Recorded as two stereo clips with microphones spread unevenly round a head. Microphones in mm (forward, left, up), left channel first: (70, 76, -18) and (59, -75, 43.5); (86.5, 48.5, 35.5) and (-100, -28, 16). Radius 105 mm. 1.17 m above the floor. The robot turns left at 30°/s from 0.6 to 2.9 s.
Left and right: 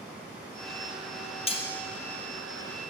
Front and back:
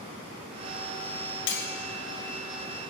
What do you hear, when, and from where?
1.5 s cutlery clinking: 25° left, 0.7 m; by 1.7 s 15° left, 0.7 m